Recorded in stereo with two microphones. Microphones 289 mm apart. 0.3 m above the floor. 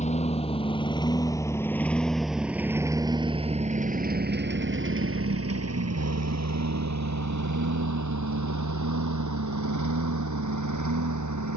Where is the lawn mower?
25° left (ahead or behind); by 11.6 s 85° right.